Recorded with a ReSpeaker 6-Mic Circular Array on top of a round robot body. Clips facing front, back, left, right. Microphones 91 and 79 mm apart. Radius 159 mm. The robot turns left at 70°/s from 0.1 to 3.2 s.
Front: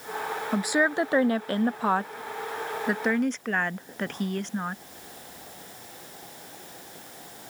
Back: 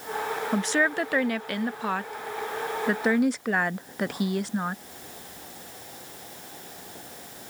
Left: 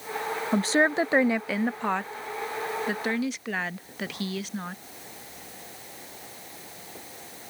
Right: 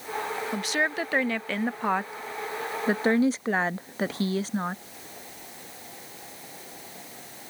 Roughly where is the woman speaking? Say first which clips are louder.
Front 1 dB, left 7 dB; left.